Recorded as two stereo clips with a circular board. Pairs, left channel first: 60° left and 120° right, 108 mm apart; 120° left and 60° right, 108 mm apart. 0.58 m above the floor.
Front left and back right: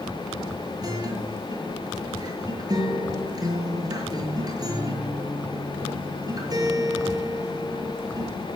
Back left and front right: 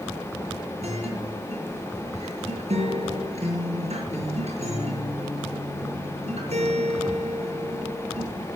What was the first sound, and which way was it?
A guitar, 65° right.